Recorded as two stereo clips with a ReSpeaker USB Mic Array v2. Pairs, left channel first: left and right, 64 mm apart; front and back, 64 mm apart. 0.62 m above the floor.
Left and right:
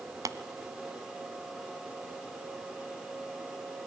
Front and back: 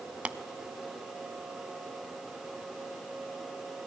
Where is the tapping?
110° right, 0.8 m.